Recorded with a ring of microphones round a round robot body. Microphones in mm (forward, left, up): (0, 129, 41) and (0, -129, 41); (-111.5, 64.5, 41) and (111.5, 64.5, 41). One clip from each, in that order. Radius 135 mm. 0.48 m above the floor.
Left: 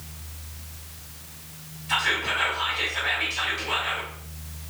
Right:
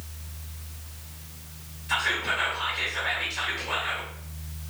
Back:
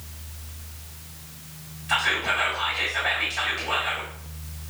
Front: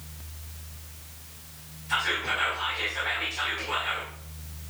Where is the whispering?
150° right, 1.6 m.